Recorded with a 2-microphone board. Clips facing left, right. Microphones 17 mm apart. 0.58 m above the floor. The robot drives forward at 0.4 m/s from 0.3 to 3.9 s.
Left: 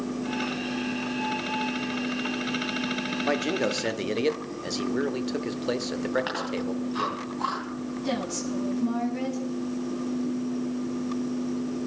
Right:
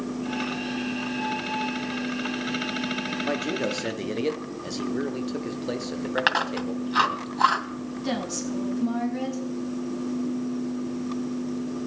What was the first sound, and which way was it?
A man speaking, 20° left (ahead or behind).